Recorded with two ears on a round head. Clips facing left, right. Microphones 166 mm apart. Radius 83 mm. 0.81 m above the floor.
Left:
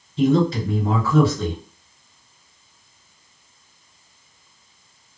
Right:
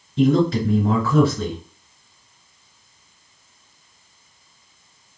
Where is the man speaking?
50° right (ahead or behind), 2.5 m.